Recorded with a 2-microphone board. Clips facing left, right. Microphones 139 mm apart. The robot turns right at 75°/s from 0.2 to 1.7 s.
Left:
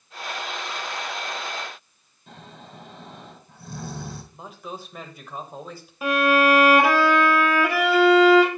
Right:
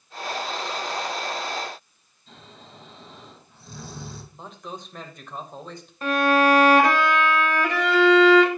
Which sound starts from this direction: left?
Snoring, at 2.3 s.